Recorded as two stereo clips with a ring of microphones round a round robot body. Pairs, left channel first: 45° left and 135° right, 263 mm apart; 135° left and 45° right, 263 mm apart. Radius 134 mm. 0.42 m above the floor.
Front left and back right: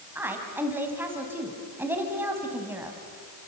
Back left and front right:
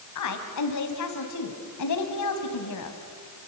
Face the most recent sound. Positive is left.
turn(degrees=145)